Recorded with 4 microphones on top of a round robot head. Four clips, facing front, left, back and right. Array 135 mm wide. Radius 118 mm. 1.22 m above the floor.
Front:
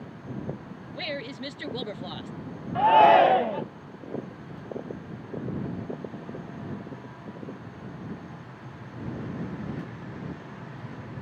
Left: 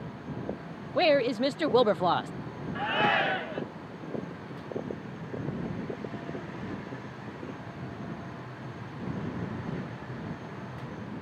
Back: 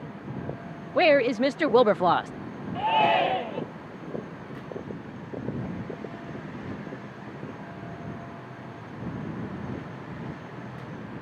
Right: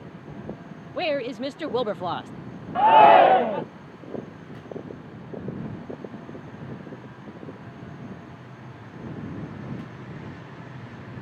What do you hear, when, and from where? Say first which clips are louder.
0.9 s a woman speaking: left 3 dB, back 16 dB; 170° left
2.8 s a shout: right 15 dB, front 6 dB; 75° right